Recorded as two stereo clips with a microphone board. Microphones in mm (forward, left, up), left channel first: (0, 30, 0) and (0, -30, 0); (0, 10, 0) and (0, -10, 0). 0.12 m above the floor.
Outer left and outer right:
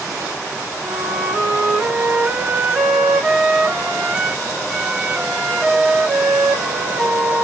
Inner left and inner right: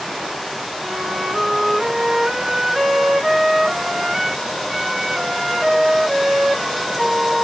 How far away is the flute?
About 1.3 m.